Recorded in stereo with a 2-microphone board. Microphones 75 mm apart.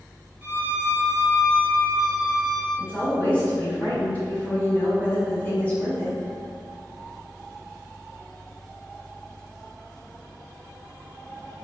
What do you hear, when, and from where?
0.4 s a violin: 20° right (ahead or behind), 0.7 m
2.8 s a woman speaking: 20° left (ahead or behind), 1.4 m